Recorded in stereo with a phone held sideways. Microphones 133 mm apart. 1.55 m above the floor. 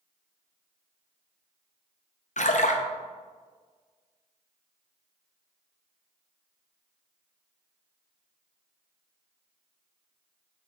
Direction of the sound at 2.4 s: 65° left (ahead or behind).